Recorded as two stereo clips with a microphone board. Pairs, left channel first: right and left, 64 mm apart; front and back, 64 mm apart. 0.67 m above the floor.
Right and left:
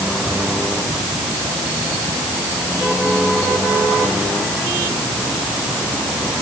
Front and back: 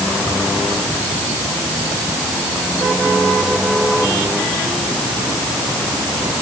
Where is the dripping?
No dripping in this recording.